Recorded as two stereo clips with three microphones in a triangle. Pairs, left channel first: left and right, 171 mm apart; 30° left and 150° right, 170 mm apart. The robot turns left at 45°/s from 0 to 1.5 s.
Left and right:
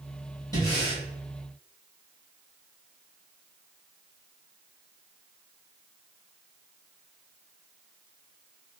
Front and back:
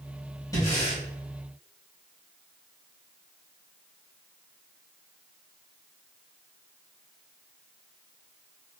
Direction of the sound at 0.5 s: 65° left.